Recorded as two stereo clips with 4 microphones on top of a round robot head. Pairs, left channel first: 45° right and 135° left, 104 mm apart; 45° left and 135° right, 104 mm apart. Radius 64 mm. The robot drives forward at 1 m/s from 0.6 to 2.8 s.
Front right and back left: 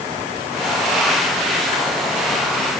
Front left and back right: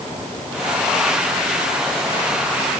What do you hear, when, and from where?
Only background noise.